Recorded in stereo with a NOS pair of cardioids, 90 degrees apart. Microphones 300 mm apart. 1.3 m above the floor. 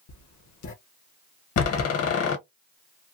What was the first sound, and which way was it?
Writing, 65° left.